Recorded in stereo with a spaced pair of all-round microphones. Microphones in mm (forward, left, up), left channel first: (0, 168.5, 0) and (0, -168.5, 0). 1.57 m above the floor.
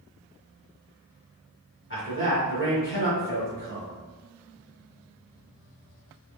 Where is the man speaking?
35° left (ahead or behind), 1.9 m.